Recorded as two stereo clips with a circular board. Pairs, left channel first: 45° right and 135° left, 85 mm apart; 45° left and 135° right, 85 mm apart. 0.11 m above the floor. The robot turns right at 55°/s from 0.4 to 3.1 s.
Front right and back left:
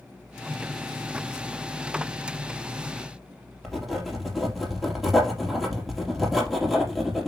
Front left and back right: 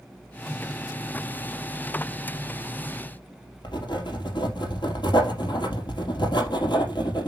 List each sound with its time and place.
3.6 s writing: 50° left, 3.5 m